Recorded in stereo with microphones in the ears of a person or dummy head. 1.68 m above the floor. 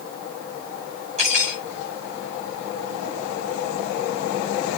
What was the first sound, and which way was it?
Cutlery clinking, 35° right (ahead or behind).